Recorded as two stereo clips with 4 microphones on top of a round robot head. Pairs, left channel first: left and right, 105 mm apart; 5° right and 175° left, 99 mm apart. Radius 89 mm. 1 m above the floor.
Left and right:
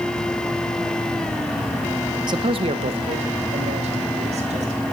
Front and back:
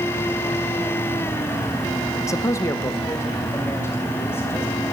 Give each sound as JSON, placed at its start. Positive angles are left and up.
{"t": 2.3, "sound": "a man speaking", "azimuth_deg": -55, "distance_m": 0.7}